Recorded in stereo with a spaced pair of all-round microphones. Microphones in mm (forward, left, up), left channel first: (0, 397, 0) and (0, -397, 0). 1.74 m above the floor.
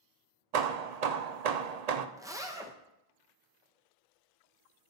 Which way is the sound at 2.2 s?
5° right (ahead or behind).